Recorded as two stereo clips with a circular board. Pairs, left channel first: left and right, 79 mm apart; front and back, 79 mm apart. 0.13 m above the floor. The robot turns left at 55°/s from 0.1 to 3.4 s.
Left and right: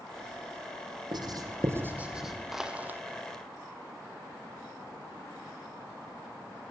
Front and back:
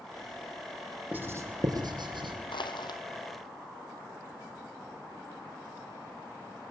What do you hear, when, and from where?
1.1 s writing: 110° right, 5 m; by 2.4 s 175° right, 5 m
2.5 s crushing: straight ahead, 1.7 m; by 3.0 s 30° right, 1.7 m